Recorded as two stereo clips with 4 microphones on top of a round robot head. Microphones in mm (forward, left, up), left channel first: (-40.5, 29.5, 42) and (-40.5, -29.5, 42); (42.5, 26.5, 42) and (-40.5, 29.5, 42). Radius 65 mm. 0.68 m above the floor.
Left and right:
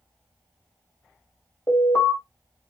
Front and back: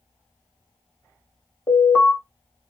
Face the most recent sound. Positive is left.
turn(degrees=40)